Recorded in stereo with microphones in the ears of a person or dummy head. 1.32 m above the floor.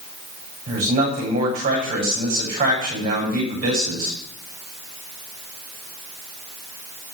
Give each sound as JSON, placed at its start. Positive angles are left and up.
{"t": 0.7, "sound": "a man speaking", "side_deg": -45, "distance_m": 7.0}